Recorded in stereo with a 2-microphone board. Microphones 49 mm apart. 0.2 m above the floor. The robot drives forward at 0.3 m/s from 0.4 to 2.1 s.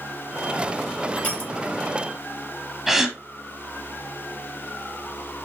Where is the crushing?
35° left (ahead or behind), 5 m.